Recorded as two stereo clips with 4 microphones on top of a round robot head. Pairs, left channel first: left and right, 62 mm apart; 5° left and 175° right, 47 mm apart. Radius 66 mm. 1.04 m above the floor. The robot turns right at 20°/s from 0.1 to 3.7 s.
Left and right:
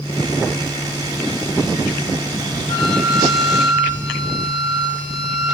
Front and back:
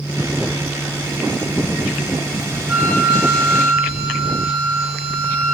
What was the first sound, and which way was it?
A flute, 125° left.